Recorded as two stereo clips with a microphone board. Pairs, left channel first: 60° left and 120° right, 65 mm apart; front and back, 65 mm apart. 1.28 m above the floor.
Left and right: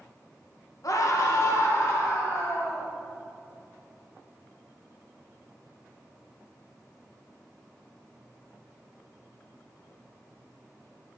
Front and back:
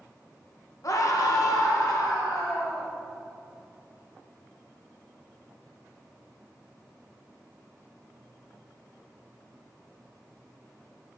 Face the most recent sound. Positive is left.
turn(degrees=15)